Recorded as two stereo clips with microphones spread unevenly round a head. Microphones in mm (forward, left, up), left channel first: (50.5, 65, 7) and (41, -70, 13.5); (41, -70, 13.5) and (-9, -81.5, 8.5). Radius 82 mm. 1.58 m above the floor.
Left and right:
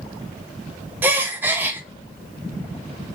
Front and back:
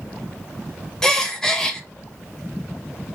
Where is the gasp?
40° right, 0.6 m.